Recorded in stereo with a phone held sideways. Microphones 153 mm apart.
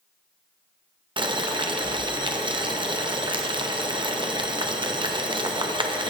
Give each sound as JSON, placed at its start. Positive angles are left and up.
{"t": 1.2, "sound": "boiling", "side_deg": -35, "distance_m": 0.6}